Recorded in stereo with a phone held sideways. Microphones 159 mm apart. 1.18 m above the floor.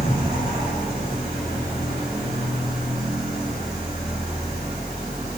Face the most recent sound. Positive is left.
turn(degrees=70)  # may be behind; listen again after turning